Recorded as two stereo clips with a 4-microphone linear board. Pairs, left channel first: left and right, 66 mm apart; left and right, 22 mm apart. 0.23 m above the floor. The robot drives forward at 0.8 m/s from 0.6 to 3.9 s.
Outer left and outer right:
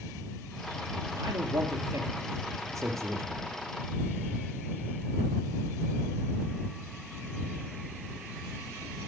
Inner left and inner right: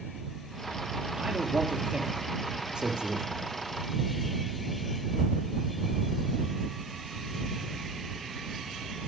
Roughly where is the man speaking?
Right.